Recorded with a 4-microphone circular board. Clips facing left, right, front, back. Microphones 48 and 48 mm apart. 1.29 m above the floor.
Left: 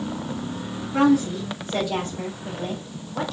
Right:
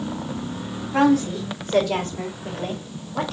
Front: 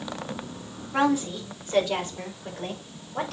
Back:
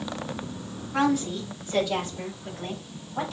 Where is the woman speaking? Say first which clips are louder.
Right 1 dB, front 1 dB; 70° right, 4 m; by 3.3 s 45° right, 4.5 m.